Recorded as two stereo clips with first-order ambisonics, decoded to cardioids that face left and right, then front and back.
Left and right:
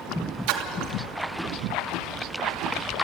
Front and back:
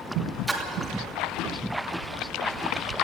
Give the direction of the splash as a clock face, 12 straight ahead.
3 o'clock.